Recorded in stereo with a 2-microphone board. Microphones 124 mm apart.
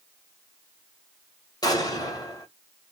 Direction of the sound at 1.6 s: 30° left (ahead or behind).